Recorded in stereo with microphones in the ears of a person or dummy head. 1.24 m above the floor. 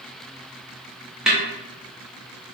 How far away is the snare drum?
About 0.6 m.